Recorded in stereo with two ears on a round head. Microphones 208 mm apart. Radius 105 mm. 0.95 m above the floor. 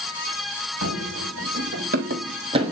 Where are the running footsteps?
65° right (ahead or behind), 2 m; by 2.7 s 20° right (ahead or behind), 1.2 m.